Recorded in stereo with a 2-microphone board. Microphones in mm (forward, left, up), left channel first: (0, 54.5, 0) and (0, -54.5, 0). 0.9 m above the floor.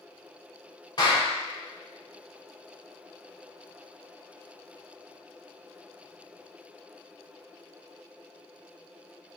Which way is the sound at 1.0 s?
40° left (ahead or behind).